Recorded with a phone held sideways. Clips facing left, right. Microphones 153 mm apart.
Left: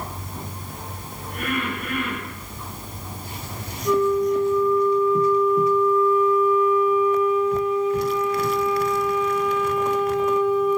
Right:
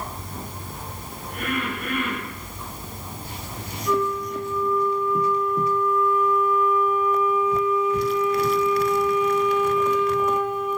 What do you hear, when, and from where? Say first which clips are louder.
3.9 s a flute: left 6 dB; 35° left (ahead or behind), 7.5 m